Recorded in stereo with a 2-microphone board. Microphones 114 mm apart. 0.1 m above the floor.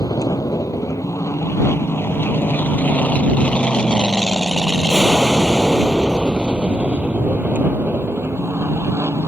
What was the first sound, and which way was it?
An aircraft, 30° left (ahead or behind).